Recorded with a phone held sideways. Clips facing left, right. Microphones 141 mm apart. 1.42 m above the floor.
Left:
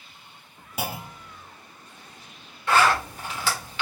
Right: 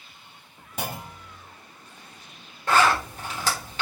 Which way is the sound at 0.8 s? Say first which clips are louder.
Left 1 dB; 5° left (ahead or behind).